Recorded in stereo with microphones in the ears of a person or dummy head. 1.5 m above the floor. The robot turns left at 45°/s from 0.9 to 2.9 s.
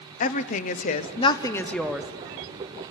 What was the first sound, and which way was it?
A woman speaking, 40° left.